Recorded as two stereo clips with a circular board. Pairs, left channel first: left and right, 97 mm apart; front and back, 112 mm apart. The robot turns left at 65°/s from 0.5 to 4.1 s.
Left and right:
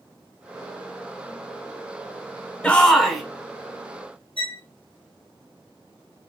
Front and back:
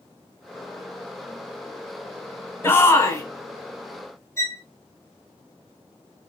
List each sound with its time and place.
2.6 s a shout: 30° left, 1.1 m; by 3.2 s 5° right, 1.1 m
4.4 s a violin: 65° left, 0.7 m